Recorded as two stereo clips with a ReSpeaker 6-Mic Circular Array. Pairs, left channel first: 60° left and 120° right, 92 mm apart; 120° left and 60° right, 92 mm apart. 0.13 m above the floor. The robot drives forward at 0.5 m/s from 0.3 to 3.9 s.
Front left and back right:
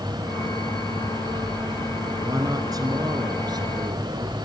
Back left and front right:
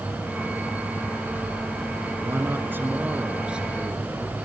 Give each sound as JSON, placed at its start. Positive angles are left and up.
{"t": 2.2, "sound": "a man speaking", "azimuth_deg": -105, "distance_m": 1.3}